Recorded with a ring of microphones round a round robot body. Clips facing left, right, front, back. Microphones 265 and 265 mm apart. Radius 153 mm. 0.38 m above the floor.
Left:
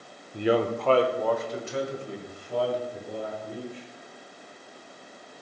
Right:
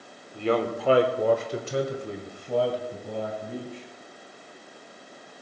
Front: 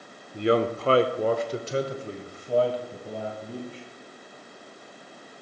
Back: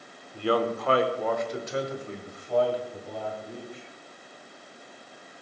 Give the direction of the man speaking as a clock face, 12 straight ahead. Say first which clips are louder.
Left 1 dB, front 3 dB; 10 o'clock.